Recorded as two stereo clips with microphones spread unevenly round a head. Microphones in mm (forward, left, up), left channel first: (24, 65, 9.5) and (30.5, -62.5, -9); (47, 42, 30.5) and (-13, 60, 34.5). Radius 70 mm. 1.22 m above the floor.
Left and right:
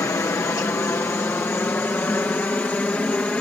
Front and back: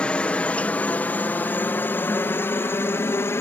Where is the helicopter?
35° left; by 3.4 s 15° left.